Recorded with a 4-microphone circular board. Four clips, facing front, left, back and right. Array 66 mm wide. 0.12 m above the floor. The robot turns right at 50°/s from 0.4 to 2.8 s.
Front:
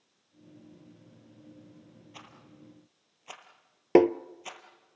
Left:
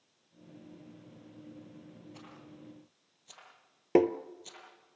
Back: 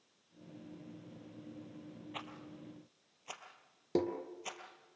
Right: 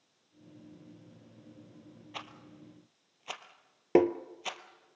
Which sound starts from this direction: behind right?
A rattle, at 2.1 s.